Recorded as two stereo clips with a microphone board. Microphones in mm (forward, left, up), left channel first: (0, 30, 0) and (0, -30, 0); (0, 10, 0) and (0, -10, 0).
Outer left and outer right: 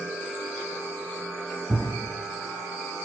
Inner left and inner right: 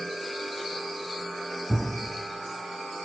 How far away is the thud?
About 1.7 m.